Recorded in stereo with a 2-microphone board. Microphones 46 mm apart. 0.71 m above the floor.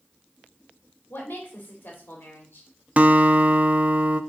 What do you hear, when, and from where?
1.1 s a woman speaking: 50° left (ahead or behind), 2 m
3.0 s a guitar: 35° right (ahead or behind), 0.5 m